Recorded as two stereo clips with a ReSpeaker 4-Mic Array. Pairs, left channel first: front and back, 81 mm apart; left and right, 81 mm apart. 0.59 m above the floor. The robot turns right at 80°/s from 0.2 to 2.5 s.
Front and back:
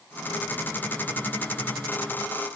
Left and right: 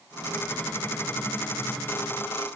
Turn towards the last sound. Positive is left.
No sound to turn to.